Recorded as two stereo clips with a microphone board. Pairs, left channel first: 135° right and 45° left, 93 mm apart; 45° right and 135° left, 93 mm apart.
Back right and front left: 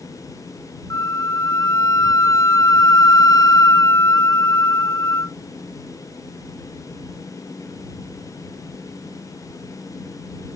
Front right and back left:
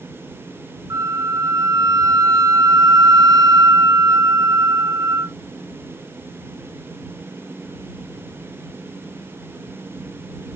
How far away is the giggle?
I don't hear a giggle.